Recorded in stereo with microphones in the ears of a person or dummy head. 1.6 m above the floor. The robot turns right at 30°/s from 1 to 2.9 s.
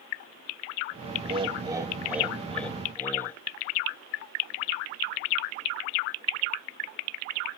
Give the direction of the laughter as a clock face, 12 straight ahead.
1 o'clock.